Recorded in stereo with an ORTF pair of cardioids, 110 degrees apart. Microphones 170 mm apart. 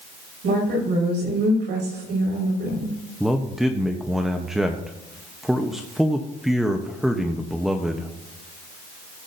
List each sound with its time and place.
0.4 s a woman speaking: 70° right, 6.5 m
3.2 s a man speaking: straight ahead, 1.0 m